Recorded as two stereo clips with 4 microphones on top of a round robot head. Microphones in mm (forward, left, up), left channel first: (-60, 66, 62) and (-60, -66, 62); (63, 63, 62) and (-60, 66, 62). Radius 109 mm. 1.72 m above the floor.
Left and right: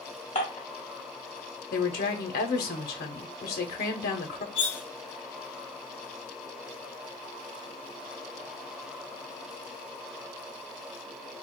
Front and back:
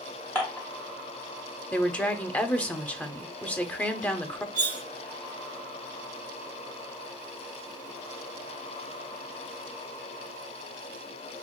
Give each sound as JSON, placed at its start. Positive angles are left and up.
{"t": 0.3, "sound": "dishes clattering", "azimuth_deg": 65, "distance_m": 1.1}
{"t": 1.7, "sound": "a woman speaking", "azimuth_deg": 75, "distance_m": 0.7}
{"t": 4.5, "sound": "cutlery clinking", "azimuth_deg": 35, "distance_m": 0.9}